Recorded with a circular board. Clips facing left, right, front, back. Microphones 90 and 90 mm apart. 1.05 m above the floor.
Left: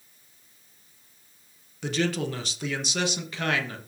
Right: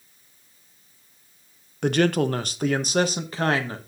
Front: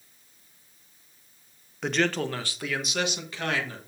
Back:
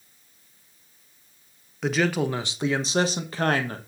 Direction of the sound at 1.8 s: 90° right.